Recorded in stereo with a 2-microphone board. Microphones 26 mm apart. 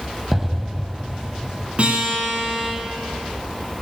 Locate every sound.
0.3 s an explosion: 10° right (ahead or behind), 0.6 m
1.8 s a guitar: 45° right (ahead or behind), 6.5 m